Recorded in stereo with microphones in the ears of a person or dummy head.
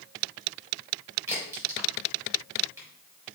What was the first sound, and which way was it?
A crack, 15° right (ahead or behind).